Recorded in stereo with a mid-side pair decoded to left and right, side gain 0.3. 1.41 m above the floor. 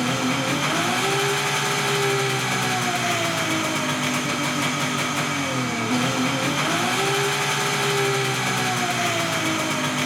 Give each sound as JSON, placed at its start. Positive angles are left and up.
{"t": 0.0, "sound": "an engine running", "azimuth_deg": -10, "distance_m": 0.8}